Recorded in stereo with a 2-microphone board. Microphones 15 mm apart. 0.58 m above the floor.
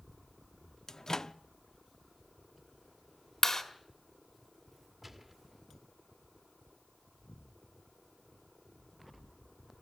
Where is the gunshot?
15° right (ahead or behind), 1.8 m.